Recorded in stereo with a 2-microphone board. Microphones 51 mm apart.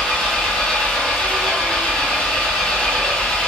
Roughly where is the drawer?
No drawer in this recording.